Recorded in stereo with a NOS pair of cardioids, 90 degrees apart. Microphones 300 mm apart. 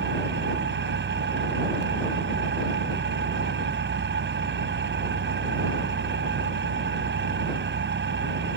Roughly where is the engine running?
Ahead right.